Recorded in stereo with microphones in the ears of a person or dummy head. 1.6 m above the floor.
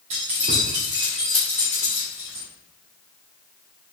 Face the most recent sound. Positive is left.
turn(degrees=25)  # may be behind; listen again after turning